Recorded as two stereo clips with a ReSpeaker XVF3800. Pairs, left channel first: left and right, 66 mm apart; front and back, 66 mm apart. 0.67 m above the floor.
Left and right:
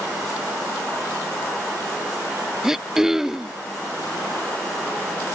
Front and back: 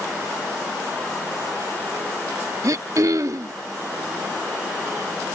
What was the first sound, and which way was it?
Throat clearing, 170° right.